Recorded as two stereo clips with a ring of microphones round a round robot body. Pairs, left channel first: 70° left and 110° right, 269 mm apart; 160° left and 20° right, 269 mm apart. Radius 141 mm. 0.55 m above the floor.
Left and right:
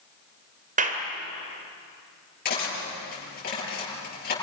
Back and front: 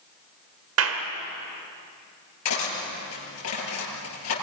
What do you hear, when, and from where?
0.8 s a clap: 55° right, 2.5 m
2.5 s cutlery clinking: 125° left, 8 m